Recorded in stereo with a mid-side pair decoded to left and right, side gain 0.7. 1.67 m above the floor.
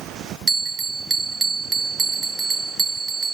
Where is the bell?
20° right, 0.8 m.